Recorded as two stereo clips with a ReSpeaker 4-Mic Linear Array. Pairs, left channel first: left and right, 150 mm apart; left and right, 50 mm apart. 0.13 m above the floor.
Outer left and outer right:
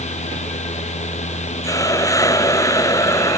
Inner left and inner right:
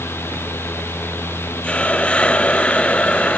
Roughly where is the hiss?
Left.